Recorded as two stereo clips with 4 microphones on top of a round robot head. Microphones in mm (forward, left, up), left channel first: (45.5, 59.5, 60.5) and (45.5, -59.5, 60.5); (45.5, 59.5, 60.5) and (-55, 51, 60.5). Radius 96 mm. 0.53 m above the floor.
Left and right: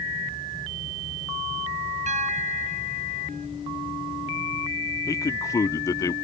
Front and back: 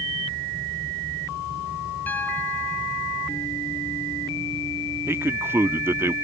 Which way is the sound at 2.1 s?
75° right.